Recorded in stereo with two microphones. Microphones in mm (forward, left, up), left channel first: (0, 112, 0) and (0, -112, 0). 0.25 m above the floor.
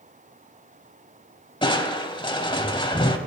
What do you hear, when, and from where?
1.6 s crushing: 25° left (ahead or behind), 0.5 m